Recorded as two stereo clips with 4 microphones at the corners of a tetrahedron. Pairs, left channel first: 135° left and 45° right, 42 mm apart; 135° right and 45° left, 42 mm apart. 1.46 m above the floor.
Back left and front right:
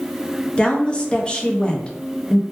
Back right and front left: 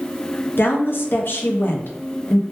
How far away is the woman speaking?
About 0.5 m.